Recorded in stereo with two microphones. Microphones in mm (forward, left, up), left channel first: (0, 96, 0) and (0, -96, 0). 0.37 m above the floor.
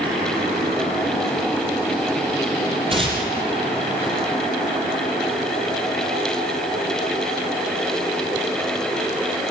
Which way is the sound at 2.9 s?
30° right (ahead or behind).